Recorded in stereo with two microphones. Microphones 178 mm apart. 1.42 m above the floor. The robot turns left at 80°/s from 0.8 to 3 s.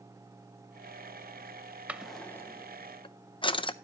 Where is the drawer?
10° right (ahead or behind), 0.5 m; by 3.7 s 30° left (ahead or behind), 0.5 m.